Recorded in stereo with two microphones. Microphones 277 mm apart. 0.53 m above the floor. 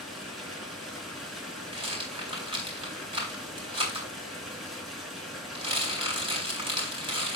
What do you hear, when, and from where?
0.0 s running water: centre (ahead or behind), 3.5 m
1.7 s a rattle: 20° right (ahead or behind), 4 m